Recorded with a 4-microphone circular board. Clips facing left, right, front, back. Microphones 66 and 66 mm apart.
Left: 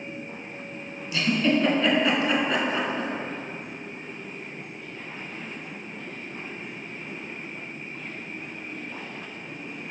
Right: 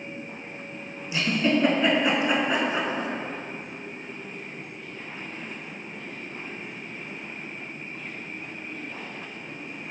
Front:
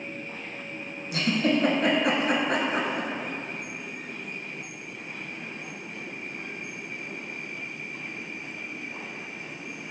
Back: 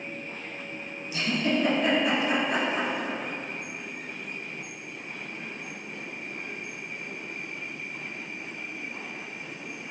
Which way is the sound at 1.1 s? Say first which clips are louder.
Left 1 dB, front 2 dB; 20° right.